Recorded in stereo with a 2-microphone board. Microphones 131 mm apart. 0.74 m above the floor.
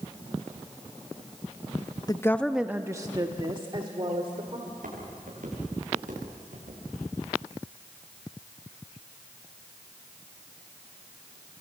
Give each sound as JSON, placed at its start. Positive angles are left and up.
{"t": 2.1, "sound": "a woman speaking", "side_deg": 30, "distance_m": 0.7}
{"t": 4.7, "sound": "footsteps", "side_deg": -85, "distance_m": 8.5}